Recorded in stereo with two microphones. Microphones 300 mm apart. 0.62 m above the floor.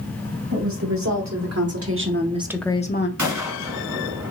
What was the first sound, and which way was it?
A woman speaking, 70° right (ahead or behind).